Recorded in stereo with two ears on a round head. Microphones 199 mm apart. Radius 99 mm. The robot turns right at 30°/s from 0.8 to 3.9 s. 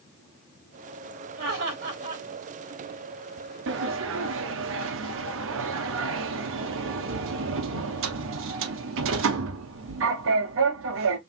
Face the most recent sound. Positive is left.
turn(degrees=-60)  # may be behind; listen again after turning